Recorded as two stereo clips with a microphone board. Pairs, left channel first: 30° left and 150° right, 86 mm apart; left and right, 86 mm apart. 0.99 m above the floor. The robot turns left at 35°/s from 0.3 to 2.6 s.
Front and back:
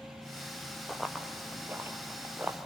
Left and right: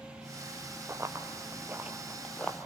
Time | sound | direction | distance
0.9 | running footsteps | 55° right | 1.1 m